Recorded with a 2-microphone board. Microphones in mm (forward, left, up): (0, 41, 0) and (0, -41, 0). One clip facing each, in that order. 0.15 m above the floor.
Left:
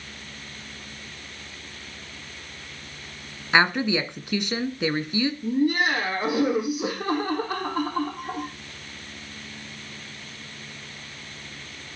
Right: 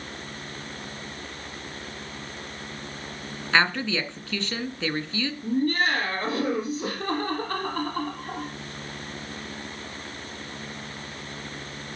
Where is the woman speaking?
20° left (ahead or behind), 1.6 m.